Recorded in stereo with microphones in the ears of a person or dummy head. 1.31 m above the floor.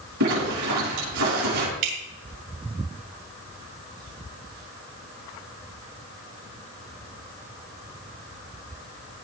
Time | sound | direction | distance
0.2 | a zipper | 70° right (ahead or behind) | 8.5 m
1.8 | dripping | 55° right (ahead or behind) | 3.5 m